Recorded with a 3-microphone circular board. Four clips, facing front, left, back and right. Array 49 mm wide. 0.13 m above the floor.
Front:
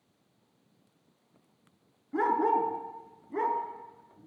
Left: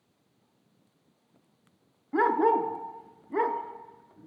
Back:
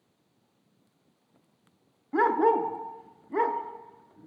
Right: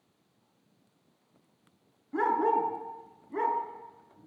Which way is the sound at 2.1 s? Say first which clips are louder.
Left 3 dB, back 3 dB; 140° left.